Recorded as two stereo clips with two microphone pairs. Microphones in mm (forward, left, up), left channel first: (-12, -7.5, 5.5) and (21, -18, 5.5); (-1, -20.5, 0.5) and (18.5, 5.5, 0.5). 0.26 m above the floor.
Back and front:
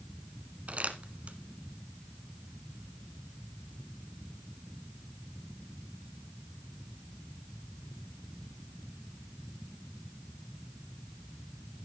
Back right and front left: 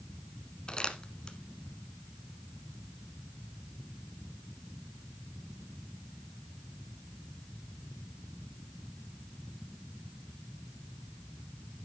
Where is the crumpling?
65° right, 1.4 m.